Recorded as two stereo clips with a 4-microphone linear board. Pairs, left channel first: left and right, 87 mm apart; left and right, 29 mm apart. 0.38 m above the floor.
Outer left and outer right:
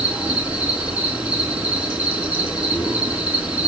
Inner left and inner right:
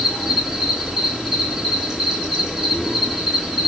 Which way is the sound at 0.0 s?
15° right (ahead or behind).